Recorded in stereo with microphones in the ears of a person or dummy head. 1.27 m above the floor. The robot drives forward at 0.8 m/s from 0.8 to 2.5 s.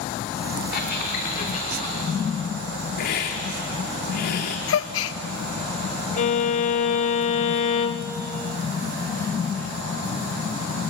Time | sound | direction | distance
0.7 | a squeak | 60° left (ahead or behind) | 2.5 m
3.0 | a hiss | 55° left (ahead or behind) | 1.5 m
4.7 | a gasp | 70° left (ahead or behind) | 0.7 m
6.2 | a violin | 45° left (ahead or behind) | 0.7 m